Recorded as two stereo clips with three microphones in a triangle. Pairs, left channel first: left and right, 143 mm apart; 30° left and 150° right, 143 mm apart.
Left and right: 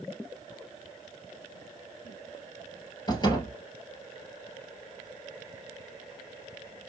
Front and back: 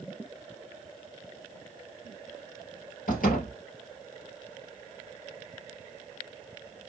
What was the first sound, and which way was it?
A door slam, 35° left.